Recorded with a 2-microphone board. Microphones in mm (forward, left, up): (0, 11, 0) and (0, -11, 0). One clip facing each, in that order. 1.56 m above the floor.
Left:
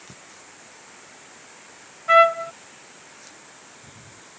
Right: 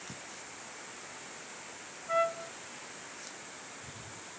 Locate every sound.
2.1 s a trumpet: 75° left (ahead or behind)